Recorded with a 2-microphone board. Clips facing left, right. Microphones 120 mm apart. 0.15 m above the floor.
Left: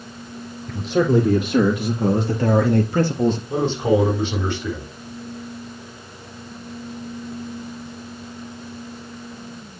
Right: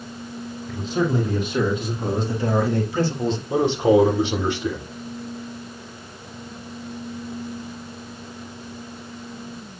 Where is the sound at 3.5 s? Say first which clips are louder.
Right 2 dB; 15° right (ahead or behind), 7 m.